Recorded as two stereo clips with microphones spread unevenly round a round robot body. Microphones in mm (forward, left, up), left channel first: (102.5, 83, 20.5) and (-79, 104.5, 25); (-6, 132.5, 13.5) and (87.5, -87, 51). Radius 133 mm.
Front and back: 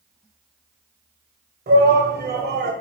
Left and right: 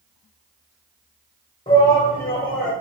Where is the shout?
175° left, 1.5 m; by 2.7 s 165° right, 1.9 m.